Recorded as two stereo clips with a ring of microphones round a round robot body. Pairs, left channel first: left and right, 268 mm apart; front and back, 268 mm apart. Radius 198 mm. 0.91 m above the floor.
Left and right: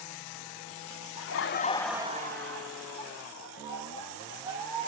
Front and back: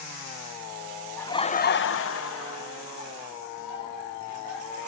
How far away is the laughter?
About 1.0 m.